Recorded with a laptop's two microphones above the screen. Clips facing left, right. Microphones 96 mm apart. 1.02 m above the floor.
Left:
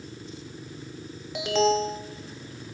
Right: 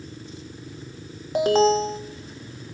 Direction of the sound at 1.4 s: 40° right (ahead or behind).